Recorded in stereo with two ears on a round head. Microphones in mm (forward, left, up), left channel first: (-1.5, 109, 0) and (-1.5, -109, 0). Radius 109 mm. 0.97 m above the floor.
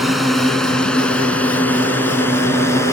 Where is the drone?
Centre (ahead or behind); by 2.9 s 10° left (ahead or behind).